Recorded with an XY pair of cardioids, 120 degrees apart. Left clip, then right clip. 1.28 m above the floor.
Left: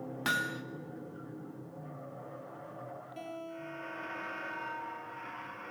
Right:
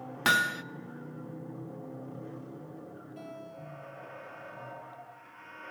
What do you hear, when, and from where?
0.2 s hammering: 40° right, 1.0 m
3.2 s a guitar: 45° left, 5.5 m